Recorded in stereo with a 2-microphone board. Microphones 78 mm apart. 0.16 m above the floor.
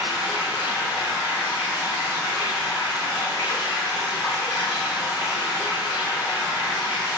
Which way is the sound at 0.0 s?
45° left (ahead or behind).